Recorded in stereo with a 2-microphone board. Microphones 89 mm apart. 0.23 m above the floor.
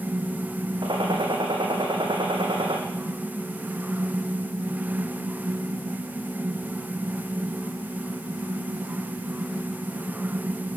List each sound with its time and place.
0.8 s a gunshot: 65° right (ahead or behind), 4 m